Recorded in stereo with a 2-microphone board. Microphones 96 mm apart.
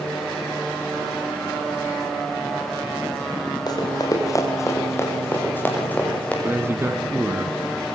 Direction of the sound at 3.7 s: 45° left (ahead or behind).